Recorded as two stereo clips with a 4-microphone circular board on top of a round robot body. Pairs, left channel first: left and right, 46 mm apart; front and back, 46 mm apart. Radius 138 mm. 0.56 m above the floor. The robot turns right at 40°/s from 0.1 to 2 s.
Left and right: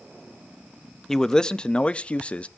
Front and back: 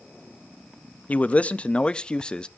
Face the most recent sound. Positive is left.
turn(degrees=55)